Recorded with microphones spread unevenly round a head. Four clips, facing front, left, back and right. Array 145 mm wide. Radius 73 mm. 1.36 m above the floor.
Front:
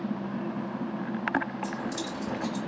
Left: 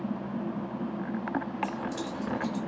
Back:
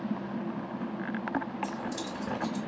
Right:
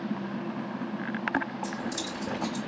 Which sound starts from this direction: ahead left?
Keys jangling, at 1.6 s.